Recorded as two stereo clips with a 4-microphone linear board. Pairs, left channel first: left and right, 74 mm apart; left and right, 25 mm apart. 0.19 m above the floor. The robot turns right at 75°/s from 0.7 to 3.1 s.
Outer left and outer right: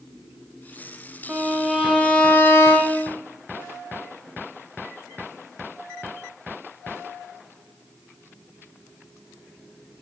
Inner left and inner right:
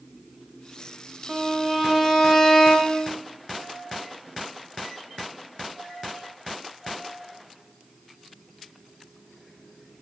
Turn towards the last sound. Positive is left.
turn(degrees=95)